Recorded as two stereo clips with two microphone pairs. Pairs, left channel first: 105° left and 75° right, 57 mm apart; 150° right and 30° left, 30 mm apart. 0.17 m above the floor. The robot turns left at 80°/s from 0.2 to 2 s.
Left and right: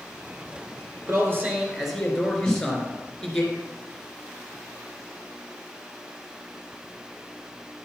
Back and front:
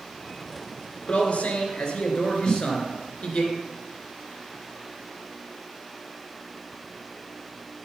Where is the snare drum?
175° right, 2 m.